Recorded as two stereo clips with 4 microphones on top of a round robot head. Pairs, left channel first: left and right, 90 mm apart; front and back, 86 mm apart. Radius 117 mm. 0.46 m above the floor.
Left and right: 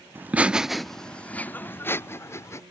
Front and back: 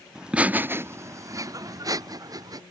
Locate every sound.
0.1 s laughter: 105° right; by 2.6 s 145° left